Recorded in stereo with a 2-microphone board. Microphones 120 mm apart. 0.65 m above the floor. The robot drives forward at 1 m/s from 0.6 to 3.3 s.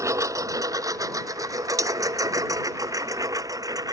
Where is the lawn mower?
25° right (ahead or behind); by 3.9 s 30° right (ahead or behind).